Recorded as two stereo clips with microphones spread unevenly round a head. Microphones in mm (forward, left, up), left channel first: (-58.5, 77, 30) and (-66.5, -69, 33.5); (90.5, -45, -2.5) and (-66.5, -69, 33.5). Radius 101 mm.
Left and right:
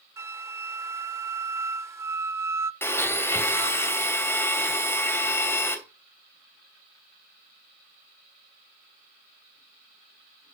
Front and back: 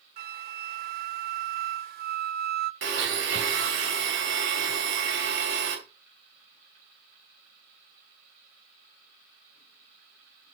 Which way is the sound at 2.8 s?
160° left.